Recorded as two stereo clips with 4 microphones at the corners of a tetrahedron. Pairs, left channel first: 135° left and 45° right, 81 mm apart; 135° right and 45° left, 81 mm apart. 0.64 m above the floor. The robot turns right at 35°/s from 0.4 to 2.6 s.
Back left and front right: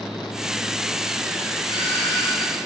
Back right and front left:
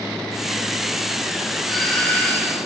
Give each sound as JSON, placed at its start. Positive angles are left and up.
{"t": 1.7, "sound": "a doorbell", "azimuth_deg": 135, "distance_m": 4.0}